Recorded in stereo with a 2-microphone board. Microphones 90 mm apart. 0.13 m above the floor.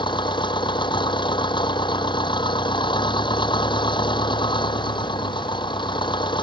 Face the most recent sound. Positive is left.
turn(degrees=70)  # may be behind; listen again after turning